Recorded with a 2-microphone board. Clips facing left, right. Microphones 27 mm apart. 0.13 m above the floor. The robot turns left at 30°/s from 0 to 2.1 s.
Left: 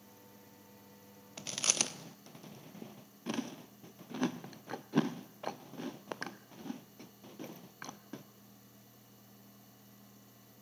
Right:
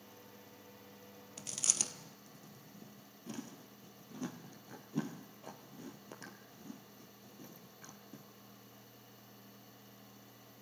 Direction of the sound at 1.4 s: 30° left (ahead or behind).